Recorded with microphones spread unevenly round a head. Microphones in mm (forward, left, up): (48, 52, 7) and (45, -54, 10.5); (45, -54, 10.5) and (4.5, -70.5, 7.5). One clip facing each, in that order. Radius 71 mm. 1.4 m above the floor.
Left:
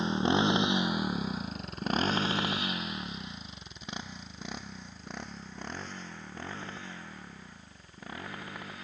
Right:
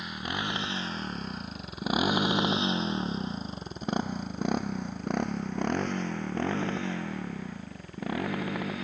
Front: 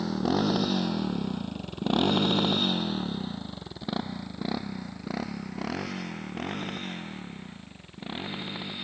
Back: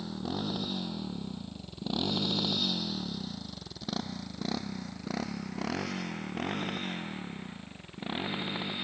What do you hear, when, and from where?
0.0 s a motorcycle: 30° left; by 8.8 s 75° right